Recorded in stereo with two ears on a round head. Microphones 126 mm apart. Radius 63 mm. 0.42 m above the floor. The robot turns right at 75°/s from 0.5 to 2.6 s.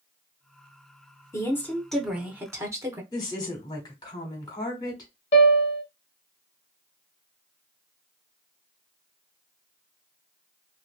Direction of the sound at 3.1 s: 30° left (ahead or behind).